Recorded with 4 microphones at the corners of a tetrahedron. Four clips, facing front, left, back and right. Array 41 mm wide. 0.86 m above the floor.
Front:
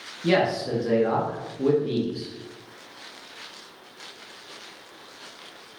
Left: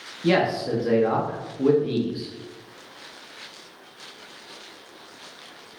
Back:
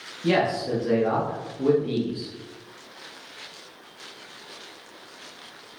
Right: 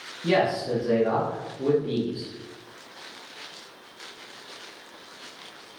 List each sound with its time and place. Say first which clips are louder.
0.2 s a man speaking: left 2 dB, even; 100° left, 0.8 m